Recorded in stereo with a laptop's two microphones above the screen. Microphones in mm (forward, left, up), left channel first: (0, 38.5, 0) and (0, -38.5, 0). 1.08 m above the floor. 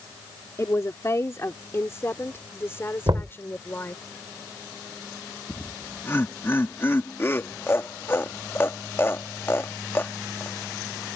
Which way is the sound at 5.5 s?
35° left (ahead or behind).